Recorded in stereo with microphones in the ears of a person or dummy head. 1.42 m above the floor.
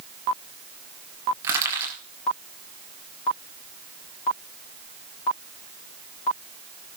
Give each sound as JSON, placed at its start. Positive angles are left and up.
{"t": 1.4, "sound": "crushing", "side_deg": -20, "distance_m": 4.0}